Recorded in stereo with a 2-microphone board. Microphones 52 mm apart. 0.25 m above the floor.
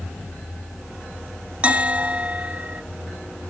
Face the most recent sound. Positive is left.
turn(degrees=-25)  # may be behind; listen again after turning